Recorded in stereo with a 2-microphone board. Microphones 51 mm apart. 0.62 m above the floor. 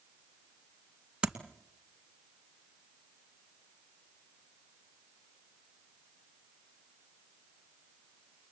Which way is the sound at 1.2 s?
15° right (ahead or behind).